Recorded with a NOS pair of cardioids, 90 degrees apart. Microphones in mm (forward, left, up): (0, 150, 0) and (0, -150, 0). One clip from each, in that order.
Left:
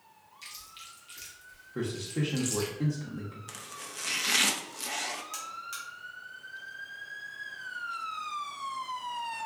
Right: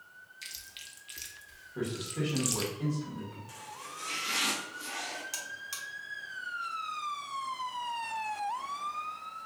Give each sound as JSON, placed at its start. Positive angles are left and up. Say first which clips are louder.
{"t": 0.4, "sound": "chewing", "louder": "right 1 dB", "azimuth_deg": -30, "distance_m": 0.6}
{"t": 1.8, "sound": "a man speaking", "louder": "left 1 dB", "azimuth_deg": 40, "distance_m": 0.9}
{"t": 3.5, "sound": "chopping", "louder": "left 1 dB", "azimuth_deg": 70, "distance_m": 0.6}
{"t": 5.3, "sound": "a buzzer", "louder": "left 1 dB", "azimuth_deg": -25, "distance_m": 0.8}